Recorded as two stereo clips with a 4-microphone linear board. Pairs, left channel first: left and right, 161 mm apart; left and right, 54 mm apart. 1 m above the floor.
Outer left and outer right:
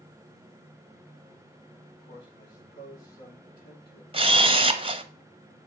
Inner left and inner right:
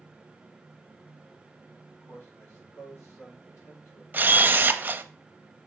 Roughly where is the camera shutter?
Right.